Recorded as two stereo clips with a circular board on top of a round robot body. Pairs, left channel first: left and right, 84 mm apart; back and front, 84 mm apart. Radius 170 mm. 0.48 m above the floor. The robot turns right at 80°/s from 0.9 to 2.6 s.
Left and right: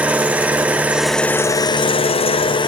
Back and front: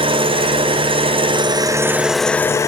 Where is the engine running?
15° right, 0.8 m; by 2.7 s 125° left, 0.8 m.